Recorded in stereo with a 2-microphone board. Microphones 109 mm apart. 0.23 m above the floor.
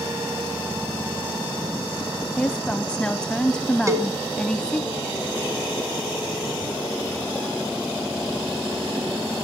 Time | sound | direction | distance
2.4 | a woman speaking | 10° left (ahead or behind) | 1.4 m
3.9 | a cowbell | 30° right (ahead or behind) | 1.8 m